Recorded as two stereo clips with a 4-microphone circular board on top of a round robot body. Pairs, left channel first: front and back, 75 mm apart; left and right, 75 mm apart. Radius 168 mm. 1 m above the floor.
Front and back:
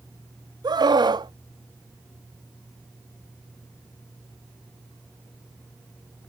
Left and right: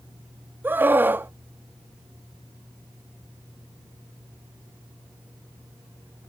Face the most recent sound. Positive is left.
turn(degrees=-155)